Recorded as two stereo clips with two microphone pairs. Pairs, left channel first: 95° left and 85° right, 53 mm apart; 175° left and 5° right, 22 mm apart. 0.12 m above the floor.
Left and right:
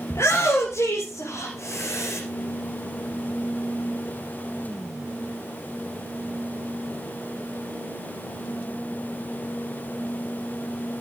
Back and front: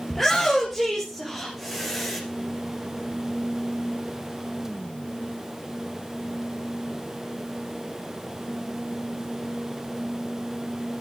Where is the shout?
85° left, 2.5 m; by 2.2 s 70° left, 4.5 m.